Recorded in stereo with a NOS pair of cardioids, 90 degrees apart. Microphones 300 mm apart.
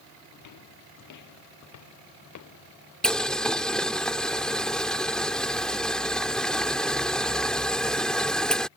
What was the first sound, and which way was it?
Footsteps, 65° left.